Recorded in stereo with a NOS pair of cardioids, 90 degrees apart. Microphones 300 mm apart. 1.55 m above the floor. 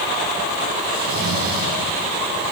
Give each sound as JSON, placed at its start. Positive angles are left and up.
{"t": 0.9, "sound": "snoring", "azimuth_deg": -45, "distance_m": 7.0}